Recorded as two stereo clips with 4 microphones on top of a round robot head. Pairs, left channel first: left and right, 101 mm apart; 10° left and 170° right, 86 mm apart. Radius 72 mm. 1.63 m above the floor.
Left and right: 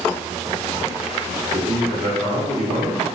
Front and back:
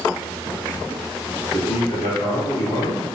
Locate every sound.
1.5 s a man speaking: 35° right, 1.8 m